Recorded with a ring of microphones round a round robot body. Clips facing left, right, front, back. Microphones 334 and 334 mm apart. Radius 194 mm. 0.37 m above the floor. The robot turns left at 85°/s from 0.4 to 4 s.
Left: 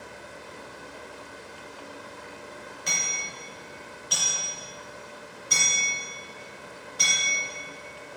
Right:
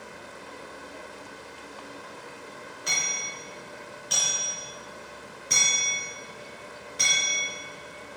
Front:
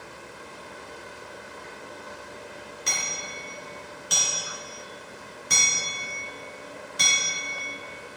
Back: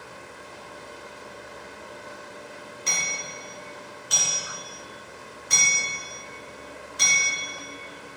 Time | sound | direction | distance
2.9 | hammering | 70° left | 3 m